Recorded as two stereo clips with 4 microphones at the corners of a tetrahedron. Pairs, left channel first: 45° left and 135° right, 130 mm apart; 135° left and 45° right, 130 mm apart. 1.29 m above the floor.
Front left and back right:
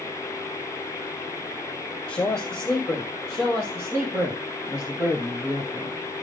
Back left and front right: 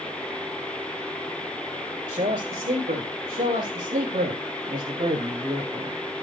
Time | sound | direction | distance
2.1 | a man speaking | 40° right | 3 m